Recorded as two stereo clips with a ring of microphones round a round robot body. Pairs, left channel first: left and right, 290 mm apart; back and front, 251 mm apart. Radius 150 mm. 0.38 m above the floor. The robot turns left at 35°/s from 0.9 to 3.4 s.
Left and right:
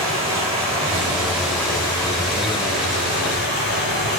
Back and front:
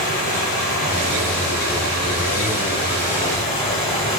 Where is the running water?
160° right, 4.5 m; by 4.2 s 110° left, 4.5 m.